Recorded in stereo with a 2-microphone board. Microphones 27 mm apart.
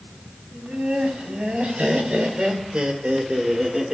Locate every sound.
0.5 s laughter: 70° right (ahead or behind), 3.5 m; by 4.0 s 20° right (ahead or behind), 1.3 m